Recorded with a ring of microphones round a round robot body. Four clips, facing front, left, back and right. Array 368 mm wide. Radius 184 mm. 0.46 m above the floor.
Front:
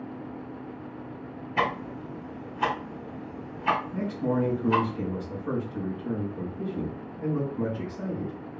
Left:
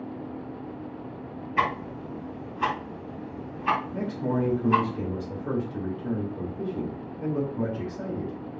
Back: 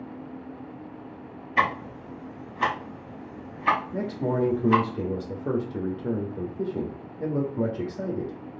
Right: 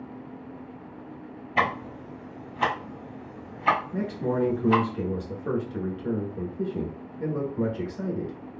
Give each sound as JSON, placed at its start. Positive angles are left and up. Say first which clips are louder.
{"t": 1.6, "sound": "ticking", "louder": "even, back 3 dB", "azimuth_deg": -115, "distance_m": 3.0}
{"t": 3.9, "sound": "a man speaking", "louder": "even, even", "azimuth_deg": -160, "distance_m": 1.6}